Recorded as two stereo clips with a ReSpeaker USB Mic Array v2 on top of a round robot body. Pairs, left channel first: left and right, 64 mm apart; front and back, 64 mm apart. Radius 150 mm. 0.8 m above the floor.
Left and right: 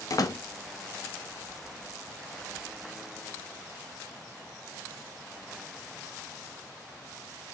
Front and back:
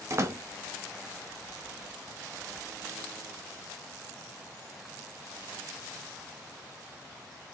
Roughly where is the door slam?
Behind left.